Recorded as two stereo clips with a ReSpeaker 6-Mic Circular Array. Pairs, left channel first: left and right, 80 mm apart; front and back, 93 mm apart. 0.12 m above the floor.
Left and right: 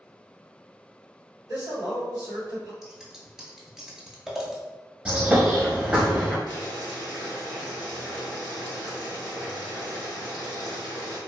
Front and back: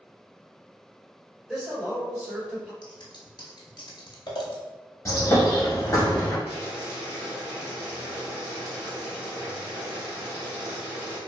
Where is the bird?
25° right, 1.1 m.